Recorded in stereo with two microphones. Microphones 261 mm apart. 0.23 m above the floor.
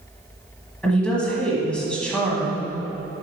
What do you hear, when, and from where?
0.8 s a woman speaking: 5° left (ahead or behind), 1.3 m